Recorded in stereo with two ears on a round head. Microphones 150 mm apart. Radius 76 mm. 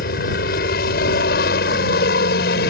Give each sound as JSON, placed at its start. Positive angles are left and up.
{"t": 0.0, "sound": "a helicopter", "side_deg": 55}